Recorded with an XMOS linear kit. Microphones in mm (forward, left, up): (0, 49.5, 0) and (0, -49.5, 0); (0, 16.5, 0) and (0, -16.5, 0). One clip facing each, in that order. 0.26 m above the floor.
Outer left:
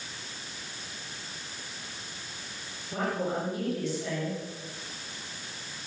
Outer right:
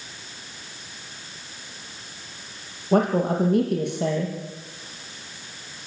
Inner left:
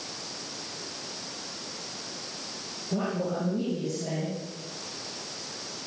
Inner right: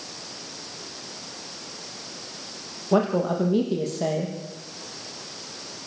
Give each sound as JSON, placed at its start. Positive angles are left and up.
{"t": 2.9, "sound": "a woman speaking", "side_deg": -55, "distance_m": 8.5}